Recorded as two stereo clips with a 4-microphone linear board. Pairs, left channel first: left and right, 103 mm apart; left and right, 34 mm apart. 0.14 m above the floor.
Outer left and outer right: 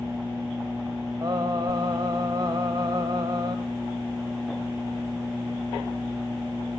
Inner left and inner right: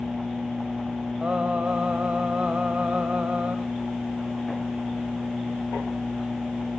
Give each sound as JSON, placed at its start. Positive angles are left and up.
{"t": 1.2, "sound": "singing", "side_deg": -45, "distance_m": 1.9}